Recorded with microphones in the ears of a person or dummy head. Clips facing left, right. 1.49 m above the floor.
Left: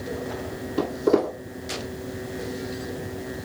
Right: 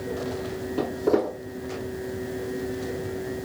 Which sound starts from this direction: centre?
Footsteps, at 0.8 s.